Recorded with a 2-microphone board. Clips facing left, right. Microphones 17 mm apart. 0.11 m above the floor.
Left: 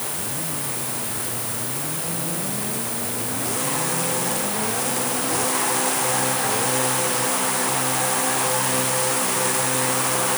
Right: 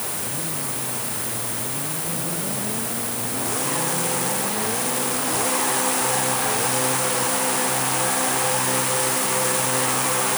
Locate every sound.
Only background noise.